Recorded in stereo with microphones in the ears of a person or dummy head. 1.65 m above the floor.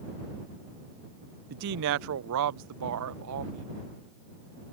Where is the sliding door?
No sliding door in this recording.